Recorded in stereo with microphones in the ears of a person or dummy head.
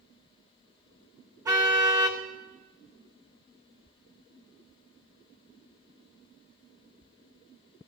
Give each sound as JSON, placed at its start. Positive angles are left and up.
{"t": 1.4, "sound": "a car horn", "side_deg": -15, "distance_m": 3.0}